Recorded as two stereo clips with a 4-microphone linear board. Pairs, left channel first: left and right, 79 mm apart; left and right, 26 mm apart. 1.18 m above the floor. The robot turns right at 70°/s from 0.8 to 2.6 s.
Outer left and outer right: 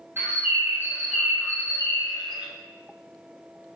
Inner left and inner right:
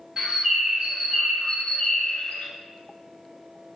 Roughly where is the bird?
Ahead right.